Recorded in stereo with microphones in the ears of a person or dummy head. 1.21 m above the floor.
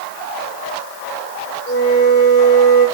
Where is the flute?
65° left (ahead or behind), 6.5 m.